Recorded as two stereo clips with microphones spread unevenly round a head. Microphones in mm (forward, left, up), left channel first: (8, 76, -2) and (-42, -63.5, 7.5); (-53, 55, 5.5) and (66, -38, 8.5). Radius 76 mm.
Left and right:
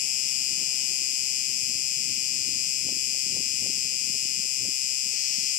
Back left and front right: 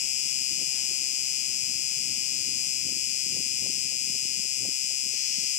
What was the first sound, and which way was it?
An insect, 100° left.